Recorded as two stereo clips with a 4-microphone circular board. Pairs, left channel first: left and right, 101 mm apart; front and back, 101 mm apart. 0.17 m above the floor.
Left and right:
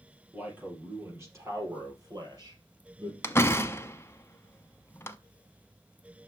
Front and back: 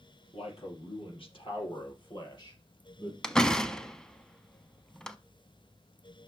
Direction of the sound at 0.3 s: 15° right.